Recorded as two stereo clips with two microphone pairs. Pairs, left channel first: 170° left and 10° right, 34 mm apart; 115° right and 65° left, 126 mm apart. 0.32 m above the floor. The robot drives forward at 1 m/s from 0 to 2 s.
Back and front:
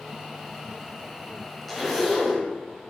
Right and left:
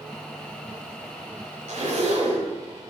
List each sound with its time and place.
1.7 s a zipper: 85° left, 5 m; by 2.5 s 90° left, 5 m